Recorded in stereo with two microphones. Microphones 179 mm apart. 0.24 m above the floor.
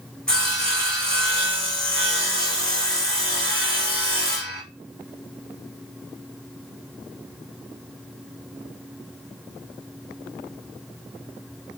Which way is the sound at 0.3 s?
5° left (ahead or behind).